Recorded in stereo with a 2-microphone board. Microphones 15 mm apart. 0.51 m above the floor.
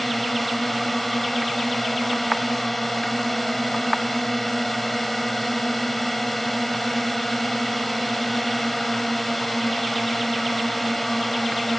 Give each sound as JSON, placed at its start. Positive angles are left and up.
{"t": 0.0, "sound": "a drone", "side_deg": 5}